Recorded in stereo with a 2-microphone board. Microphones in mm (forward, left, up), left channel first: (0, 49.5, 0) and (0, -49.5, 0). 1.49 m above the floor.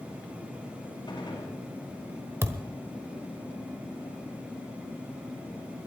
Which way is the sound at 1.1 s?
55° left (ahead or behind).